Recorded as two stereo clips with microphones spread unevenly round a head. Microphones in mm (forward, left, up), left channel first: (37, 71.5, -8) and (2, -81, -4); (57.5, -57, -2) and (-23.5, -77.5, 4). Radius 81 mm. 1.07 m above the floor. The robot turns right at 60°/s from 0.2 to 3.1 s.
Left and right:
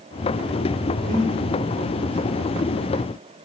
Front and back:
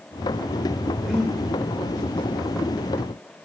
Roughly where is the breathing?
Right.